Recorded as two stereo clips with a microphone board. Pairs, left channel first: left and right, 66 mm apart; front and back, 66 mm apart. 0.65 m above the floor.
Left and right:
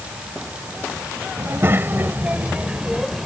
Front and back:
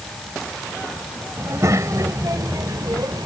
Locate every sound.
1.4 s a child speaking: 135° right; by 3.3 s straight behind